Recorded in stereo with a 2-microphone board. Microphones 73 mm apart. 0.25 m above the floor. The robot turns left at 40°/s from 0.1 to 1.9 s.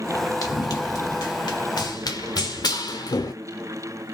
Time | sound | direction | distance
0.4 | running footsteps | 55° left (ahead or behind) | 2 m